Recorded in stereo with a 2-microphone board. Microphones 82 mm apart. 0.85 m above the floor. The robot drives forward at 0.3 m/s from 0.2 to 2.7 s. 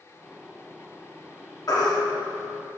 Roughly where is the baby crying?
Left.